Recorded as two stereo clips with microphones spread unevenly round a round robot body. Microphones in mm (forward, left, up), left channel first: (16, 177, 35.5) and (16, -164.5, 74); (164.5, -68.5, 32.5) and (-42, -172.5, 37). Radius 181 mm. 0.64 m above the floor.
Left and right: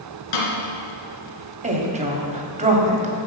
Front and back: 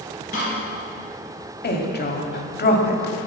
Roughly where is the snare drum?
Left.